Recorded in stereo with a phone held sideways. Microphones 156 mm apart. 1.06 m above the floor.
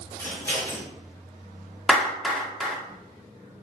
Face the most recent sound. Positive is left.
turn(degrees=0)  # may be behind; listen again after turning